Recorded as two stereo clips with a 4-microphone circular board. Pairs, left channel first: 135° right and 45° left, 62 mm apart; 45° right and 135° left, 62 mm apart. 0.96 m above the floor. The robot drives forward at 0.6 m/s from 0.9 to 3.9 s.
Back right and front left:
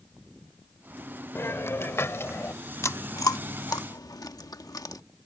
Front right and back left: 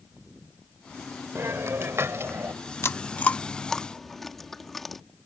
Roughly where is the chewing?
Right.